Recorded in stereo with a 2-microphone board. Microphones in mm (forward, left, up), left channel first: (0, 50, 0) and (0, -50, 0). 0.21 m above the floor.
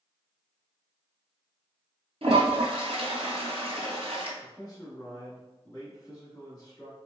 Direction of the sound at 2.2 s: 75° right (ahead or behind).